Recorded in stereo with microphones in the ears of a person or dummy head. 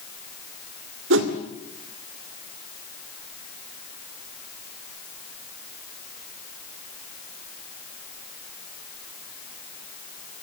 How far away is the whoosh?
About 2 m.